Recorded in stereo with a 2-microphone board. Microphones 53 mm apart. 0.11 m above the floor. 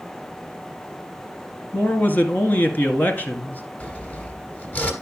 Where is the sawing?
30° left (ahead or behind), 2.5 m.